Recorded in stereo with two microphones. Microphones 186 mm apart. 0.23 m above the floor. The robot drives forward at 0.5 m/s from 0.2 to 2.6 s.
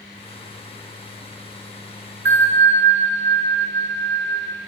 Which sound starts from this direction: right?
A bell, at 2.2 s.